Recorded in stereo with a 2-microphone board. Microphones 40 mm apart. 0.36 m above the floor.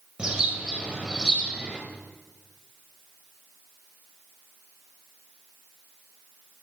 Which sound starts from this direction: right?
A bird, at 0.2 s.